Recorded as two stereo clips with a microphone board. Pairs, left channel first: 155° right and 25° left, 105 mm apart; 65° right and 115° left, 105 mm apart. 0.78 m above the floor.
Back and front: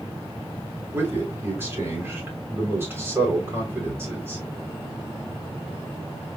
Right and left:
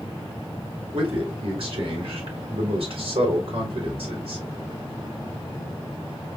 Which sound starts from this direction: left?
A man speaking, at 0.9 s.